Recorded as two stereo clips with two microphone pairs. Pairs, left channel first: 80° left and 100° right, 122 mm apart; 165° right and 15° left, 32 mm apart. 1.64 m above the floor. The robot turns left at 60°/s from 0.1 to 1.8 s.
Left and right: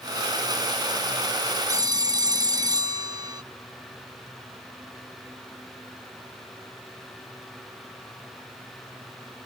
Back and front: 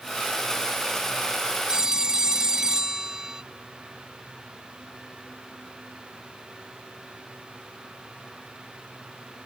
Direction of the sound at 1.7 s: 45° right.